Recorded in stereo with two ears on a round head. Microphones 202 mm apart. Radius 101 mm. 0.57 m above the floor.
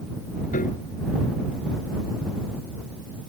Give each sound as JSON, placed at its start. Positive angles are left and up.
{"t": 0.5, "sound": "a piano", "side_deg": 35}